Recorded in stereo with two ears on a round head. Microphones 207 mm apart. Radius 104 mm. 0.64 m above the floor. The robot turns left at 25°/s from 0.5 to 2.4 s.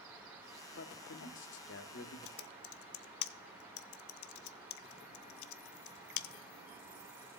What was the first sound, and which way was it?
A man speaking, 100° left.